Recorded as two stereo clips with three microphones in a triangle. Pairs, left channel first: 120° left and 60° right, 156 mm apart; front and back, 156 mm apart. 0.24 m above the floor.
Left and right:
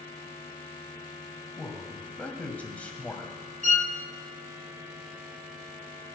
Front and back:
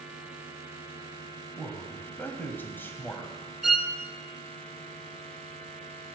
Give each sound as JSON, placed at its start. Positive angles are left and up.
{"t": 1.6, "sound": "a man speaking", "azimuth_deg": 55, "distance_m": 1.5}
{"t": 3.6, "sound": "a violin", "azimuth_deg": -90, "distance_m": 0.7}